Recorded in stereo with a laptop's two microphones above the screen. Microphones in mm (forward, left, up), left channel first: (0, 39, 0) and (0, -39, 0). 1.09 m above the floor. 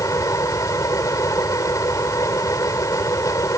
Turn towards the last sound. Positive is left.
turn(degrees=45)  # may be behind; listen again after turning